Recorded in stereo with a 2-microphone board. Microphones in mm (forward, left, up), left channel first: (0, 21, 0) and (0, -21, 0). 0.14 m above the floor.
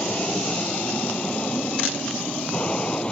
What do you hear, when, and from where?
0.0 s an aircraft: 30° left (ahead or behind); by 3.1 s 25° left (ahead or behind)